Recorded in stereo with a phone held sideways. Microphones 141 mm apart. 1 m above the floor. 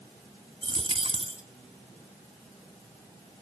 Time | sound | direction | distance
0.6 | a dropped coin | 40° right (ahead or behind) | 1.3 m